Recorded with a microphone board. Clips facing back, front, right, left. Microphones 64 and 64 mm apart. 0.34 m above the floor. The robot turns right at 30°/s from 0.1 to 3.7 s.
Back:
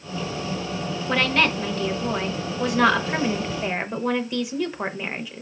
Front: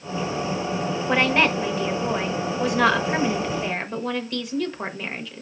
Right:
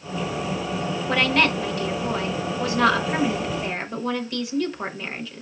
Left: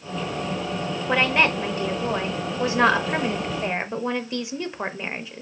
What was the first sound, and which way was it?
A woman speaking, 40° left.